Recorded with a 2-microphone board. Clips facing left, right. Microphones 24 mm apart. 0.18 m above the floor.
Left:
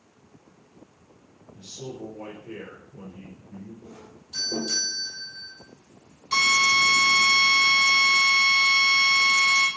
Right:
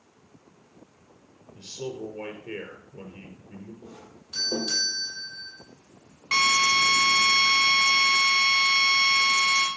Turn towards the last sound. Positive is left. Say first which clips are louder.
# left 1 dB
turn(degrees=-50)  # may be behind; listen again after turning